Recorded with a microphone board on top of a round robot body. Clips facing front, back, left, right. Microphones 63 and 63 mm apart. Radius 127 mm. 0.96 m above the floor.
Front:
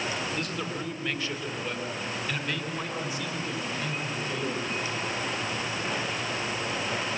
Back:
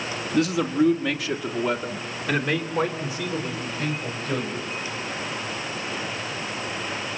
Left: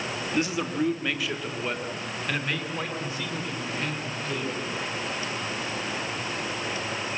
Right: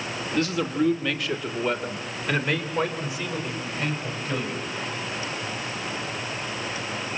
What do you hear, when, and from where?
0.3 s a man speaking: 165° left, 1.9 m; by 4.6 s 160° right, 4 m